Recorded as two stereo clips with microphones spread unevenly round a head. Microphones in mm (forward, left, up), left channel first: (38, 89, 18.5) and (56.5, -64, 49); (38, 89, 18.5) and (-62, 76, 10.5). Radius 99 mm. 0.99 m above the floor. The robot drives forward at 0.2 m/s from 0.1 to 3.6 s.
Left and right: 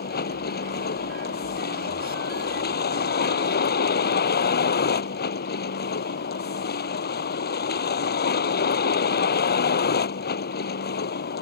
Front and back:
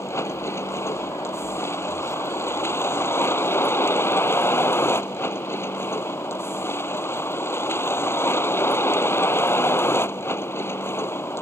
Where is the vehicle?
70° left; by 11.4 s 75° left.